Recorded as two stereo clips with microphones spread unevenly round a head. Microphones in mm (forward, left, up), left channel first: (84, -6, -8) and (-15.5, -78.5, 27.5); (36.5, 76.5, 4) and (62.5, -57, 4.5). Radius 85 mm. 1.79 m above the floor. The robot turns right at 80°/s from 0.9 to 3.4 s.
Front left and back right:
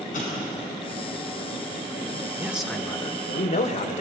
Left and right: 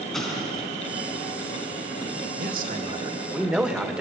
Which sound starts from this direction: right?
A man speaking, at 2.4 s.